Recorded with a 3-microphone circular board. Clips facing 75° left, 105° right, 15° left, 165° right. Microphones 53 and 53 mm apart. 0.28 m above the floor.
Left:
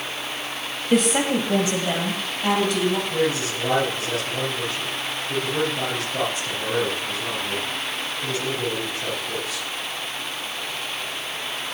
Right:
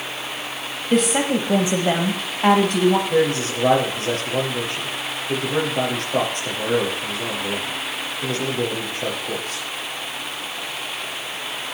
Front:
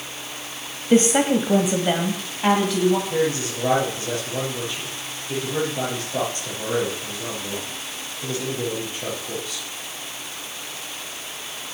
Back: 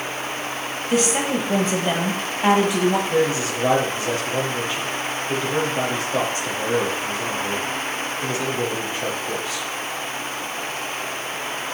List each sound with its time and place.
0.9 s a woman speaking: 10° right, 1.1 m; by 3.0 s 105° right, 1.6 m
3.1 s a man speaking: 105° right, 6 m